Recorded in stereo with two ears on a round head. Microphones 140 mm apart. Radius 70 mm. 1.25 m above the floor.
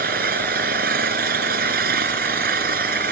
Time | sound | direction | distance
0.0 | an engine running | 65° right (ahead or behind) | ?